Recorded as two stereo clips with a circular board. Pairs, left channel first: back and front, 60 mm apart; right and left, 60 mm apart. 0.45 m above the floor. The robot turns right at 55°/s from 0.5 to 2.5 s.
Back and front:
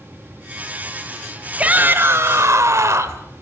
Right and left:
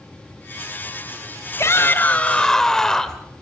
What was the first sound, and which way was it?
A shout, 65° right.